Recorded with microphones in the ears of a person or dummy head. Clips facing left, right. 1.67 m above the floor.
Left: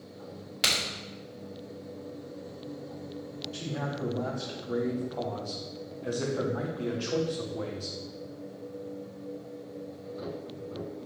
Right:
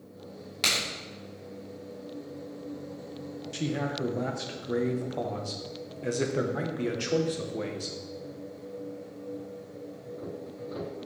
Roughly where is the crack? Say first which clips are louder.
Even; centre.